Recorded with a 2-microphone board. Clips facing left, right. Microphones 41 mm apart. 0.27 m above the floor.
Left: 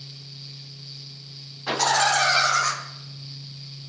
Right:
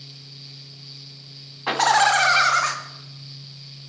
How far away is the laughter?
About 2.5 m.